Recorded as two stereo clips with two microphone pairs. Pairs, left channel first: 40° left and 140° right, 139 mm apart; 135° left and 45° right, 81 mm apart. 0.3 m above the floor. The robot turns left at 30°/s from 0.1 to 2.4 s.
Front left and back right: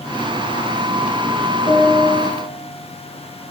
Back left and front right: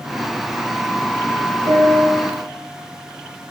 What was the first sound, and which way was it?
A piano, 20° right.